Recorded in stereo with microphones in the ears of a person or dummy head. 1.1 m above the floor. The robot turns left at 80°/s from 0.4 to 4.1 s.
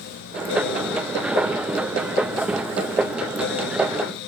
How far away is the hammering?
I don't hear hammering.